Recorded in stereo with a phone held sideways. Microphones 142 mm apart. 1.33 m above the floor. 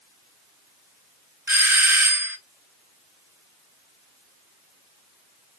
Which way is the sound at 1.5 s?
15° right (ahead or behind).